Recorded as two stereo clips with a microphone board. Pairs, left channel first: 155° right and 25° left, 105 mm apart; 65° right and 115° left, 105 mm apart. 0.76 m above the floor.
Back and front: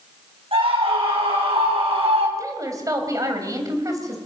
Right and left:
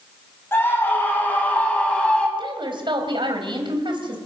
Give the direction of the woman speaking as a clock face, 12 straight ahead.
9 o'clock.